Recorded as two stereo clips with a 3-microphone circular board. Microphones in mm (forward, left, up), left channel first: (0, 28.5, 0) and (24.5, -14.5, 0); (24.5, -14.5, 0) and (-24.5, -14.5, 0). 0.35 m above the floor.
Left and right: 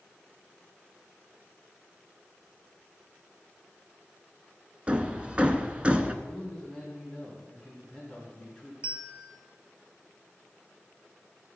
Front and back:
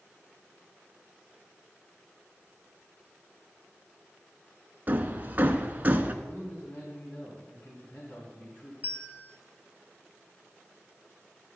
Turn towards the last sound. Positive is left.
turn(degrees=-125)